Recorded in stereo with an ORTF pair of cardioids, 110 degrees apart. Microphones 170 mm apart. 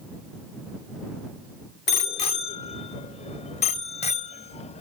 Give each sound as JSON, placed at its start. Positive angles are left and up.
{"t": 1.9, "sound": "a bicycle bell", "azimuth_deg": 40}